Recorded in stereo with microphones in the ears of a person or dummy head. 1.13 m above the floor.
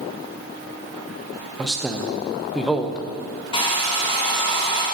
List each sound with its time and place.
1.6 s a man speaking: centre (ahead or behind), 0.5 m
3.5 s a hair dryer: 20° left (ahead or behind), 1.4 m